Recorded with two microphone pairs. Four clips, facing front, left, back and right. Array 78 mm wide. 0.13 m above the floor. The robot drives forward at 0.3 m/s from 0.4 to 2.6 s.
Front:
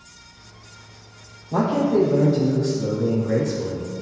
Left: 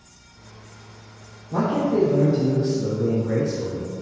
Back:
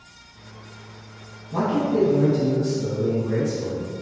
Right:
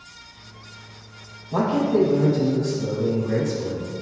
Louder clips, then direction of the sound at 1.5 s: Right 1 dB, front 3 dB; 5° left.